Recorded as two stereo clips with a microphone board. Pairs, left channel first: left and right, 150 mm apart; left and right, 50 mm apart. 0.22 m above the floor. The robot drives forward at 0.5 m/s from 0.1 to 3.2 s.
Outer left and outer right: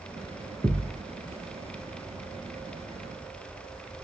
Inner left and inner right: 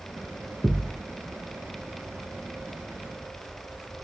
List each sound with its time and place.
0.6 s a thud: centre (ahead or behind), 1.2 m